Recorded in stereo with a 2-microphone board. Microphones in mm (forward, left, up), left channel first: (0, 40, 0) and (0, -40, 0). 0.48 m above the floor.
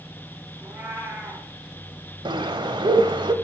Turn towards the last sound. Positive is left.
turn(degrees=-75)  # may be behind; listen again after turning